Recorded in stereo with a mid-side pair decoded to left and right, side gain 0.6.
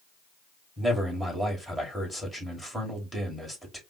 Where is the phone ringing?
No phone ringing in this recording.